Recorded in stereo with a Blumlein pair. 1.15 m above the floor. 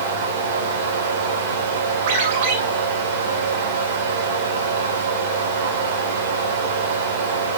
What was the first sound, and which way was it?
A fan, 60° right.